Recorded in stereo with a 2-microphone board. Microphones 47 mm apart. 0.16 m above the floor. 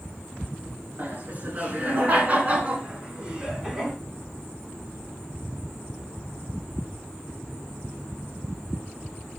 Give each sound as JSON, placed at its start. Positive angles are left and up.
{"t": 1.0, "sound": "laughter", "side_deg": -40, "distance_m": 2.5}